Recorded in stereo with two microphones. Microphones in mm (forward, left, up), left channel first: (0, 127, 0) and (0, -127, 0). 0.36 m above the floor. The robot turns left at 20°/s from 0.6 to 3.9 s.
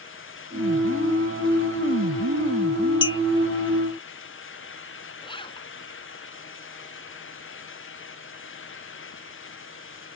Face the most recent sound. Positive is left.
turn(degrees=20)  # may be behind; listen again after turning